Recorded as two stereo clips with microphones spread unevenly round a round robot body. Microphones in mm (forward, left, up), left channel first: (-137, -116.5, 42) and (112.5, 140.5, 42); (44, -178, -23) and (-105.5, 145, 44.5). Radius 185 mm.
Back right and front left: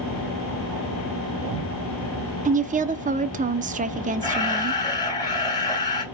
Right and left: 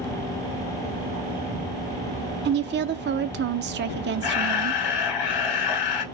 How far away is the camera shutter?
About 3 m.